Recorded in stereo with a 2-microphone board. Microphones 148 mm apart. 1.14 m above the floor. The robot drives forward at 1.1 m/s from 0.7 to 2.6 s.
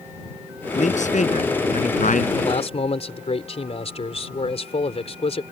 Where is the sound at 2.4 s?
40° left (ahead or behind); by 5.4 s 45° left (ahead or behind).